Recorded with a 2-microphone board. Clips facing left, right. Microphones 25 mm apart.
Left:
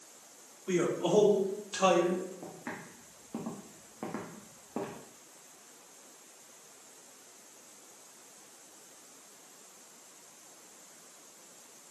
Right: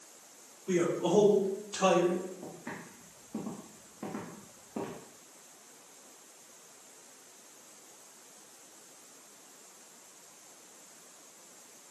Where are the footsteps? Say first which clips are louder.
Left 1 dB; 45° left (ahead or behind), 3.5 m; by 5.0 s 50° left (ahead or behind), 2.5 m.